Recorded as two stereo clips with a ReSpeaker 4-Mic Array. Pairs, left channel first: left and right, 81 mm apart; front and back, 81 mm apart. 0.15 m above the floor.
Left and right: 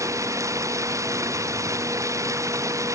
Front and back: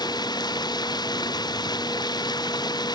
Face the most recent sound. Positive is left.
turn(degrees=-35)